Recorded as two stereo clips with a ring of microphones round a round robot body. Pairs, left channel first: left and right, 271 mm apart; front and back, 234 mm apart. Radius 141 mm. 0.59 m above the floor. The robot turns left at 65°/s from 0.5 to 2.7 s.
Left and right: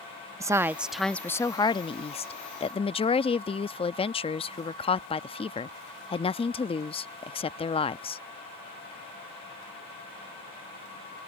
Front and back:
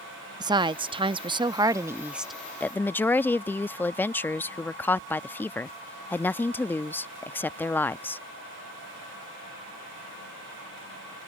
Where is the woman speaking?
150° right; by 8.2 s 70° left.